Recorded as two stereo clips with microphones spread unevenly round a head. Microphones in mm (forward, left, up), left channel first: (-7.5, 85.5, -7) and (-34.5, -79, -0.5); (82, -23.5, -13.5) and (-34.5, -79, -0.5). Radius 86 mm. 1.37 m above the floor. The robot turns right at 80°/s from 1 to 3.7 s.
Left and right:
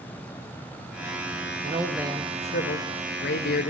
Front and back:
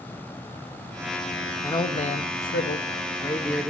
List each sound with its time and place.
1.6 s a man speaking: 40° right, 0.8 m; by 3.7 s 125° left, 0.8 m